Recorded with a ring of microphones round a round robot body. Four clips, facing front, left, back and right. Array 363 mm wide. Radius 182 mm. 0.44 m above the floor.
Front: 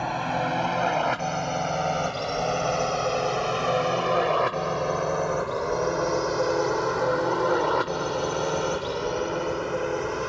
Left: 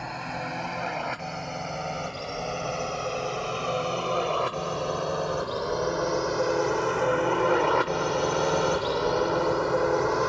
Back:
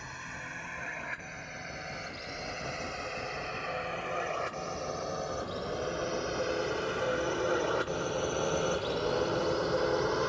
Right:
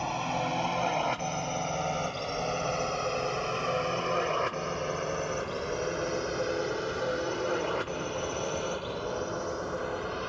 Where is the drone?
10° right; by 10.3 s 85° left.